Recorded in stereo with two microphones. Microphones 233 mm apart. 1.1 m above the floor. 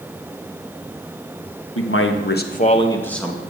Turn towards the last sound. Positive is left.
turn(degrees=-5)  # may be behind; listen again after turning